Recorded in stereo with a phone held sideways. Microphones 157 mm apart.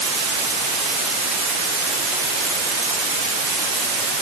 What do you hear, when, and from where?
Only background noise.